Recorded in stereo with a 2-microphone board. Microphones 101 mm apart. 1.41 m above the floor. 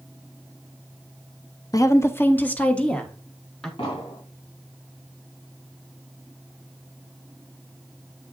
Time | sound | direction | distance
1.7 | a woman speaking | 35° left (ahead or behind) | 0.7 m
3.8 | an explosion | 70° left (ahead or behind) | 3 m